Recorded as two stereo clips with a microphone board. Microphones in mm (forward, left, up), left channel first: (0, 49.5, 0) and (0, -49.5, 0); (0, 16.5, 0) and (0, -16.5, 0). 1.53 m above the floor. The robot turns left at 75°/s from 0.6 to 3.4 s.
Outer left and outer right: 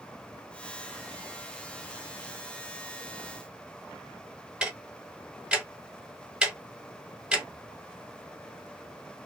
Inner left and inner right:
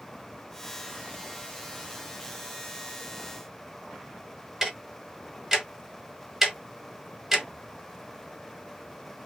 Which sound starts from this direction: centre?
Ticking, at 4.6 s.